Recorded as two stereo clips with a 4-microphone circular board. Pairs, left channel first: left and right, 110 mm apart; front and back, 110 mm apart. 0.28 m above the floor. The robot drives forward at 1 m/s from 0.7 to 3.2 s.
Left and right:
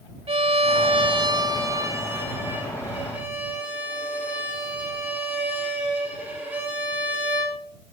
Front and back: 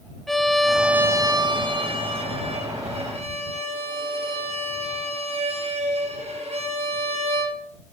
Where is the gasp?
No gasp in this recording.